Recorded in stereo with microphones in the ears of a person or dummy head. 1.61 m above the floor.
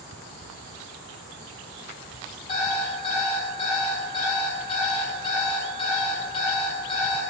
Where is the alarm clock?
30° left (ahead or behind), 4.5 m.